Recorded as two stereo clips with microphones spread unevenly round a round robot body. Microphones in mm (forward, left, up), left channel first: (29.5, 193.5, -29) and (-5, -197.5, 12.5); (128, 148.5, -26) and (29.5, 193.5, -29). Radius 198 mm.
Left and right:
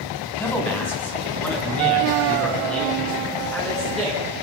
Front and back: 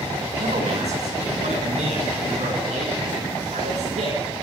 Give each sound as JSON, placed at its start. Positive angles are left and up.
{"t": 0.4, "sound": "a man speaking", "azimuth_deg": 170, "distance_m": 5.0}